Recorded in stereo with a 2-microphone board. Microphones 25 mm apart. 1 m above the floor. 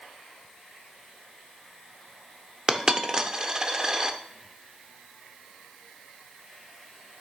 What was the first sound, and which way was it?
A dropped coin, 25° right (ahead or behind).